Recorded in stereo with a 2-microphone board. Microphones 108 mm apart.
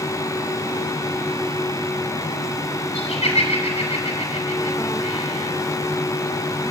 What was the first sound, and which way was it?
Laughter, 80° left.